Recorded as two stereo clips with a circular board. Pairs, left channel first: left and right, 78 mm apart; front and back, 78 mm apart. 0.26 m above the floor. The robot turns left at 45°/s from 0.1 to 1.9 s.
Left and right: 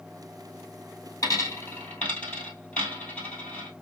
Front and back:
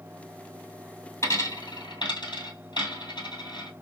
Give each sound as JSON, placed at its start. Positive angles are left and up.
{"t": 1.2, "sound": "a dropped coin", "azimuth_deg": 45, "distance_m": 1.5}